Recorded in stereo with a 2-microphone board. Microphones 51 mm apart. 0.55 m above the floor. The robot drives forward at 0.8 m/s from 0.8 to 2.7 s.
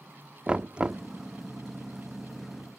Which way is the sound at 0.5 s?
20° right (ahead or behind).